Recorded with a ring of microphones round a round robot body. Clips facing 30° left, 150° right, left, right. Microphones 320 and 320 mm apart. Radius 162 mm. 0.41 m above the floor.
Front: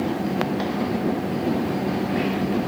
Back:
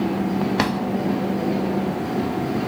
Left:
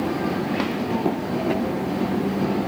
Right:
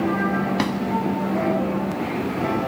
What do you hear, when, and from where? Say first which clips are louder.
0.6 s a drawer: back 3 dB, right 1 dB; 150° right, 0.7 m